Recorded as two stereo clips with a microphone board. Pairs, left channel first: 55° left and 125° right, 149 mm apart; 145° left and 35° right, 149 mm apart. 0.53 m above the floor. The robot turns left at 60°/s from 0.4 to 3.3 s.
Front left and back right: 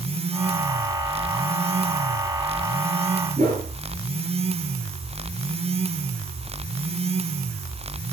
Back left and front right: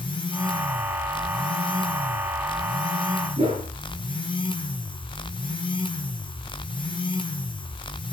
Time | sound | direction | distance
3.4 | a whoosh | 90° right | 9.5 m